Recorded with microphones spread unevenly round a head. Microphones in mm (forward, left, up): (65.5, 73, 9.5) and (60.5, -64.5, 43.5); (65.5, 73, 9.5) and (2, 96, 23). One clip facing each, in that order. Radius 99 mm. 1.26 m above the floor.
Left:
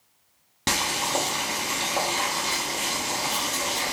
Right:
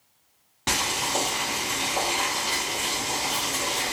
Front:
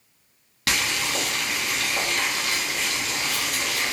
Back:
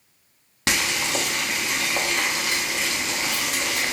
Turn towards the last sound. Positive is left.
turn(degrees=155)